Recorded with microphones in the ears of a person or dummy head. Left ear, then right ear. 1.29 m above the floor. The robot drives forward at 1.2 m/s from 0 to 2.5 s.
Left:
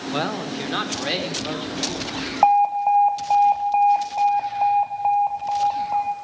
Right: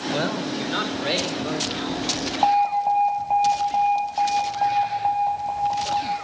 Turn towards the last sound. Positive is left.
turn(degrees=45)  # may be behind; listen again after turning